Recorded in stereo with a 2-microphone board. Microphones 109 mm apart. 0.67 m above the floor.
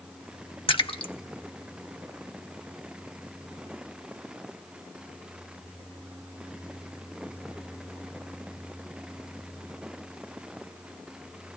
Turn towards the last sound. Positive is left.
turn(degrees=55)  # may be behind; listen again after turning